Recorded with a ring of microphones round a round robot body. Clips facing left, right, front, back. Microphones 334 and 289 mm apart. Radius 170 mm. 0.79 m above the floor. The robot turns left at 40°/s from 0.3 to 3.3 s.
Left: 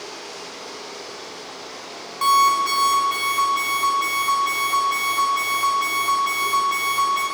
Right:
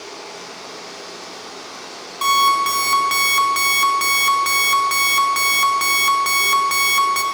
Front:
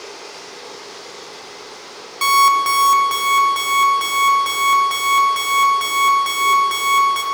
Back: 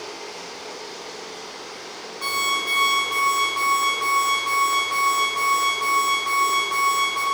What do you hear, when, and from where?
0.0 s running water: 10° left, 3 m; by 7.3 s 110° right, 3 m
2.2 s an alarm clock: 5° right, 0.8 m; by 7.2 s 50° right, 0.8 m